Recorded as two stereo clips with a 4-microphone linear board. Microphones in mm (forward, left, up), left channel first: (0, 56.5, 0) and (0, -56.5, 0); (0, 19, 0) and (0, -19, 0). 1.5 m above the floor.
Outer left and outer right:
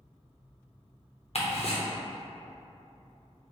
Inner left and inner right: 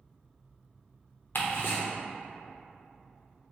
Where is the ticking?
60° left (ahead or behind), 0.8 m.